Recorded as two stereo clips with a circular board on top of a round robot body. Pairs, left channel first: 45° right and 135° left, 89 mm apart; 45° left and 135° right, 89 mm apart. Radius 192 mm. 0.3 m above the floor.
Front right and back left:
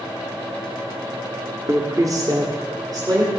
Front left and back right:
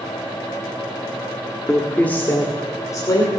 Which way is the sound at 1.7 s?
125° left.